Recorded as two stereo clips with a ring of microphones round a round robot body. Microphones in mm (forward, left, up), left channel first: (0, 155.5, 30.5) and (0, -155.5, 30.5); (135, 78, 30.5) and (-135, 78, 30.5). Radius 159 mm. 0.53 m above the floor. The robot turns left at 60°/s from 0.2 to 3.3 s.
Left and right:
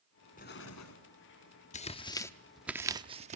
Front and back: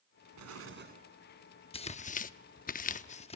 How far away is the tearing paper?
About 0.7 m.